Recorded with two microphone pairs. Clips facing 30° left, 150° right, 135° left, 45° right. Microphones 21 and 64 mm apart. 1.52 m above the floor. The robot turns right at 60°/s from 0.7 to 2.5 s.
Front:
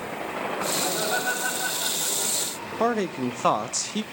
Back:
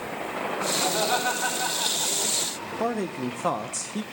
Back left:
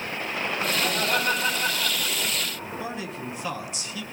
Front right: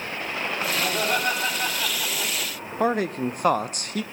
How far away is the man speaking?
About 0.5 m.